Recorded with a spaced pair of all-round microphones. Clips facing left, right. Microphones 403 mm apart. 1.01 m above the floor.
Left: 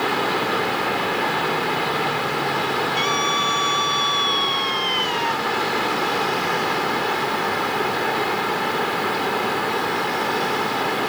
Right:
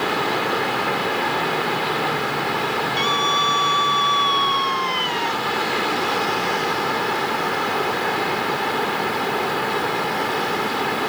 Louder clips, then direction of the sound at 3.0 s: Even; 60° right (ahead or behind).